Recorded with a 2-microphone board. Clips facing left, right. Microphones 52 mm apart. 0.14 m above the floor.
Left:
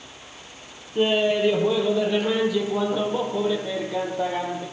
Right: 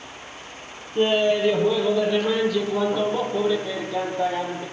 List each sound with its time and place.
0.9 s laughter: 10° left (ahead or behind), 3.5 m; by 4.6 s 15° left (ahead or behind), 5.5 m